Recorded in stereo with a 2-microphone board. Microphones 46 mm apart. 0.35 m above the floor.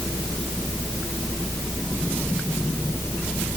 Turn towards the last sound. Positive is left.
No sound to turn to.